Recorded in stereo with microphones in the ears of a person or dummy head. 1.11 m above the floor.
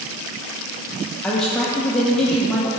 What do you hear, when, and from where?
1.2 s a man speaking: 5° left (ahead or behind), 0.6 m